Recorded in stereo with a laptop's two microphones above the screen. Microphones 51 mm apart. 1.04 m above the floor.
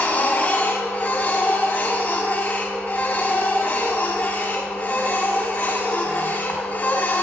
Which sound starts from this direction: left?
A machine running, at 0.0 s.